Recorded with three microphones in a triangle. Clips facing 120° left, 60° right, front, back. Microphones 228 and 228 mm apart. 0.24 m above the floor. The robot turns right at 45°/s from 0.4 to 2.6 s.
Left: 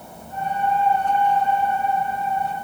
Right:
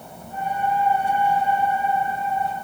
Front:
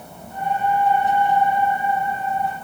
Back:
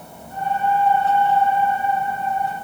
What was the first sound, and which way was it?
Only background noise.